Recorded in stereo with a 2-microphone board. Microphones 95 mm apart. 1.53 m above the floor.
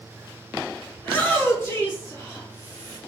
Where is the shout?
15° left (ahead or behind), 4 m; by 3.0 s 25° left (ahead or behind), 3 m.